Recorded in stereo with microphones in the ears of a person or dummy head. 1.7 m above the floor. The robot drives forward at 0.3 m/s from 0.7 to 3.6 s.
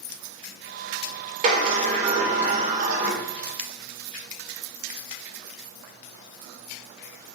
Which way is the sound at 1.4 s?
45° right (ahead or behind).